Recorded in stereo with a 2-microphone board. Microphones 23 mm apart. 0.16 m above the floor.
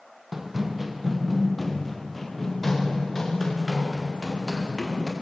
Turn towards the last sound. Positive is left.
turn(degrees=10)  # may be behind; listen again after turning